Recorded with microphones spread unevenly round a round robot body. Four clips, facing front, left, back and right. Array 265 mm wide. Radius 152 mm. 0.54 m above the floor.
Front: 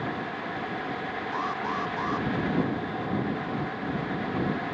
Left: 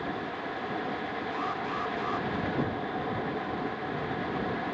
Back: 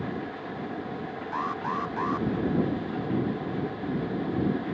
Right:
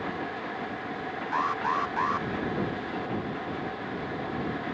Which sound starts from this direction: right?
An alarm, at 1.3 s.